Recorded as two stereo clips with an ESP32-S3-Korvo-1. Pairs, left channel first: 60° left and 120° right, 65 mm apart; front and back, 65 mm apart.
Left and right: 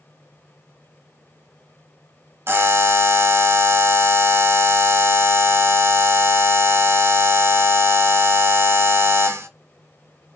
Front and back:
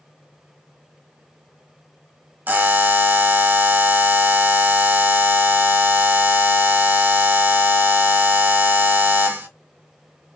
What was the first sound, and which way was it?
A buzzer, 135° right.